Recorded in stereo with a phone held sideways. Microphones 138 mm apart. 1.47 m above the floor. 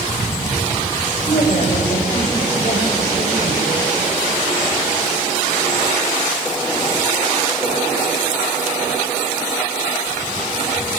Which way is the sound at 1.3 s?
60° left (ahead or behind).